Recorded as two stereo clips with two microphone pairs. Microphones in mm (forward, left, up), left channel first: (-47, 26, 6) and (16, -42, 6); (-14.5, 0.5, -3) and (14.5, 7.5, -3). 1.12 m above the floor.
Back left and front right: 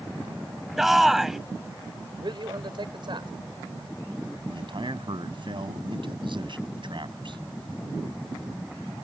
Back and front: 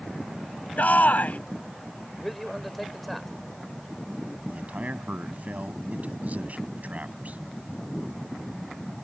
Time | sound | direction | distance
0.8 | a shout | 135° right | ?
2.2 | a man speaking | 80° right | ?
4.5 | a man speaking | 20° right | ?